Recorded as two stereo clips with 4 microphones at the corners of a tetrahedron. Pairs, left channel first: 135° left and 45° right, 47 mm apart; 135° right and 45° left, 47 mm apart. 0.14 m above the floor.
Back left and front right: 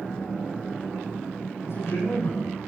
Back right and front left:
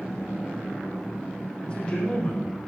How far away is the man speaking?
About 8.5 m.